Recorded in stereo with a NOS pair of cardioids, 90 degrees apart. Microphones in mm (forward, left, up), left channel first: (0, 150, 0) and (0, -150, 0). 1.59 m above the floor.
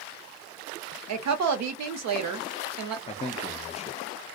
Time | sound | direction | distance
1.1 | a woman speaking | 65° right | 0.9 m
3.1 | a man speaking | 20° left | 0.6 m